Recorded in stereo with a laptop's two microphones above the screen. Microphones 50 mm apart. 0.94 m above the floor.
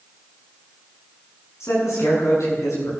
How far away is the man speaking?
About 9 m.